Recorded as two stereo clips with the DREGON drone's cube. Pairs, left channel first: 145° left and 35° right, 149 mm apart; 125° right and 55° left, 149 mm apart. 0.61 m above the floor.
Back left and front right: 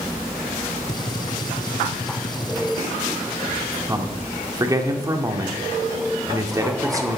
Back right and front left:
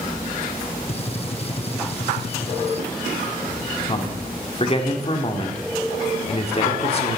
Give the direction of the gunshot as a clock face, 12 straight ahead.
5 o'clock.